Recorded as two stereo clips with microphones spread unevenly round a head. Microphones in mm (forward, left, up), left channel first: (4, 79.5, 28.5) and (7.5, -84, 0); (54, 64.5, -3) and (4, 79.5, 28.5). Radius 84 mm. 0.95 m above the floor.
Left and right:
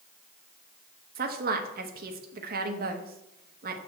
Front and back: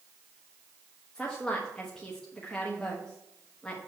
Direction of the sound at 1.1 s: 75° right.